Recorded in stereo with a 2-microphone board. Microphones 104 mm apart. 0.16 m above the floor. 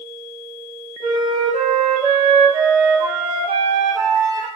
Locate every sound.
1.0 s a flute: 55° right (ahead or behind), 3 m